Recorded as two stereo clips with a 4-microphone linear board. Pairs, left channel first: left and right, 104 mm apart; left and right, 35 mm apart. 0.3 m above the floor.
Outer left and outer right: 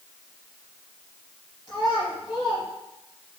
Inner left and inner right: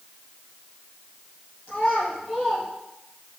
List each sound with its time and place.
1.7 s a child speaking: 40° left (ahead or behind), 3.5 m